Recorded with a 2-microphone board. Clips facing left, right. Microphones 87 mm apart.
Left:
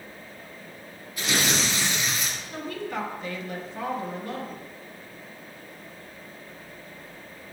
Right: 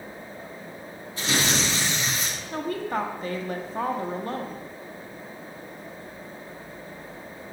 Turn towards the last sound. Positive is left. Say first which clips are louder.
# right 5 dB
turn(degrees=-40)  # may be behind; listen again after turning